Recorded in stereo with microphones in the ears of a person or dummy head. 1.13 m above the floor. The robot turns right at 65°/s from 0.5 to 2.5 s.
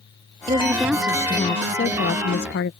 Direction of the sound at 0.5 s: 30° right.